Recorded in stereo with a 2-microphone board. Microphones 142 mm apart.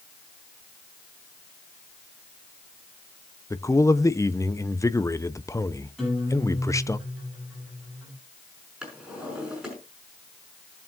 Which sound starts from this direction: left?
A man speaking, at 3.5 s.